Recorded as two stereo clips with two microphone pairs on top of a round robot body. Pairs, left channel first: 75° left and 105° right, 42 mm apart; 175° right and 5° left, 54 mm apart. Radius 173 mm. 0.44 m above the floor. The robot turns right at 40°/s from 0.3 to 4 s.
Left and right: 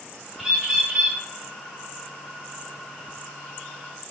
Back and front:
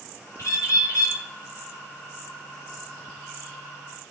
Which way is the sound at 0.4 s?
165° left.